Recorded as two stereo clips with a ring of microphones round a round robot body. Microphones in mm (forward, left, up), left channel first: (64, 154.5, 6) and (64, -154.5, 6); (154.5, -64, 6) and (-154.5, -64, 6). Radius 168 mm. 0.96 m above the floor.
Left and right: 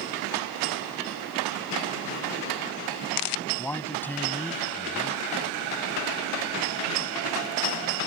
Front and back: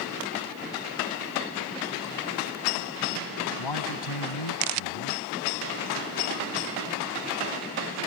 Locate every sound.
3.6 s a man speaking: 5° left